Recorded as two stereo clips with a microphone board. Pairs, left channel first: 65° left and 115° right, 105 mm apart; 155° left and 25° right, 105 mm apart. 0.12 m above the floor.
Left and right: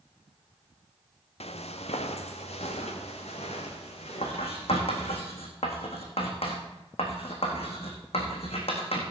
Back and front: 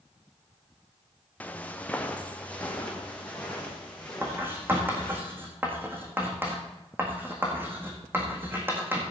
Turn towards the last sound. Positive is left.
turn(degrees=45)